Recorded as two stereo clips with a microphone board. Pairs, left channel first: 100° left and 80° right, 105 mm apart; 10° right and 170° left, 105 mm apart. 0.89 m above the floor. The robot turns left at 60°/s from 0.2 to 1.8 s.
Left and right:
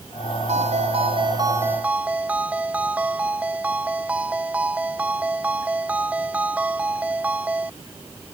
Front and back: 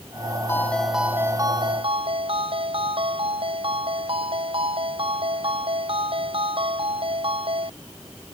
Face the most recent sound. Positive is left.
turn(degrees=-155)